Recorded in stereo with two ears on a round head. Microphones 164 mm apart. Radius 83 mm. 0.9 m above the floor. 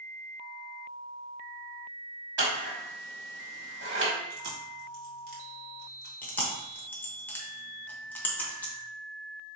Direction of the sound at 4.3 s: 50° right (ahead or behind).